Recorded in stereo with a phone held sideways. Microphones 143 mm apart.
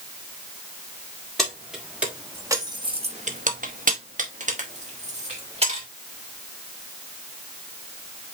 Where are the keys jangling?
Centre (ahead or behind), 1.6 m; by 5.9 s 45° right (ahead or behind), 2 m.